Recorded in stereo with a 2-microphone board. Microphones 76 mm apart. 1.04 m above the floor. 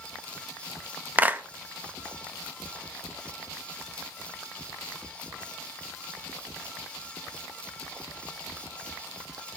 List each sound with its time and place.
1.2 s a clap: 25° right (ahead or behind), 0.7 m